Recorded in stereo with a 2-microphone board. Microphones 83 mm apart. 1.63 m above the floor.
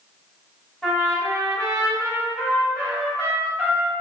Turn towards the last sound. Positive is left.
turn(degrees=5)  # may be behind; listen again after turning